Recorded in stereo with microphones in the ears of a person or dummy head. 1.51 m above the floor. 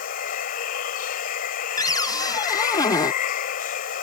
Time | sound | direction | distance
0.0 | running water | 60° left (ahead or behind) | ?
1.8 | a cupboard door | 25° left (ahead or behind) | ?